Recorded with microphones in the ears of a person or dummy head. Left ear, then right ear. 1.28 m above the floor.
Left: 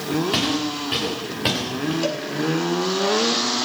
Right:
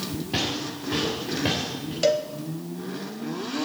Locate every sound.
0.3 s footsteps: 50° left (ahead or behind), 8 m; by 1.9 s 40° left (ahead or behind), 7.5 m
2.0 s a cowbell: 20° right (ahead or behind), 0.6 m